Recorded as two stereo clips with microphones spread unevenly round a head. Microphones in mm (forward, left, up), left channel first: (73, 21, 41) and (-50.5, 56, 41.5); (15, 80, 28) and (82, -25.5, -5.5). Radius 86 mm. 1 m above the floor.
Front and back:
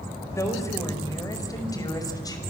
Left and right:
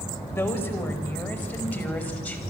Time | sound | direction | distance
0.3 | a woman speaking | 50° left | 5 m